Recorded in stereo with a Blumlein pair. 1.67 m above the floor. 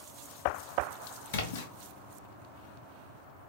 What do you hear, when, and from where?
1.3 s a splash: 55° left, 0.7 m